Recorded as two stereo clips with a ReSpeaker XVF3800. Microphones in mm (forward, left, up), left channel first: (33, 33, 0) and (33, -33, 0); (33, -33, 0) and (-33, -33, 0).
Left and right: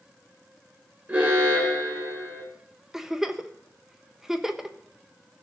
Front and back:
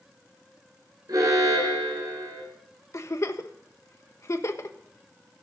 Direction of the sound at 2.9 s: 5° right.